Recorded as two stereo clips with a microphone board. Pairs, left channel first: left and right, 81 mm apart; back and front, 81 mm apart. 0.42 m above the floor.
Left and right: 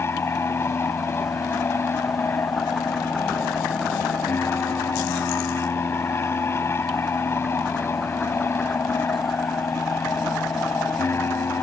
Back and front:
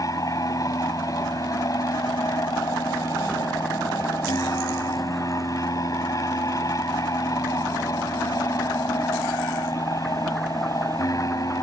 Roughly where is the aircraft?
Behind left.